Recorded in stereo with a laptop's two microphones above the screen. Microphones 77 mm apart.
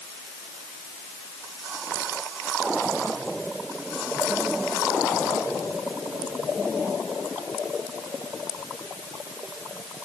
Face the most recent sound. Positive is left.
No sound to turn to.